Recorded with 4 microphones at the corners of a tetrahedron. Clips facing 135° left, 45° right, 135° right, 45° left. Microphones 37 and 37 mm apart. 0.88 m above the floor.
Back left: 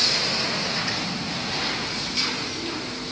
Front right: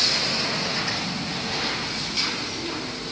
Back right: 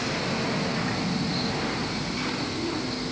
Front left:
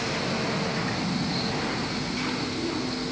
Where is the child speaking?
I don't hear a child speaking.